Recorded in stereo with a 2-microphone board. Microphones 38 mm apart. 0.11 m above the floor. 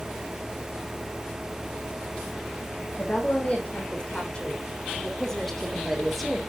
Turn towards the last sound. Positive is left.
turn(degrees=0)  # may be behind; listen again after turning